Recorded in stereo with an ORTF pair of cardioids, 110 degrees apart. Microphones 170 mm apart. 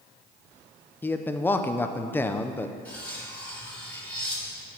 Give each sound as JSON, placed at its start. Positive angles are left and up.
{"t": 1.0, "sound": "a man speaking", "azimuth_deg": 10, "distance_m": 0.8}
{"t": 2.9, "sound": "cutlery clinking", "azimuth_deg": 10, "distance_m": 2.0}